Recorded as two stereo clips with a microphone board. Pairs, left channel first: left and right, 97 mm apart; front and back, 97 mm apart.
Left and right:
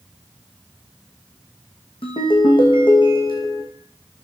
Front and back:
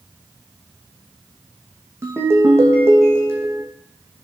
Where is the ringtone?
115° left, 2.5 m.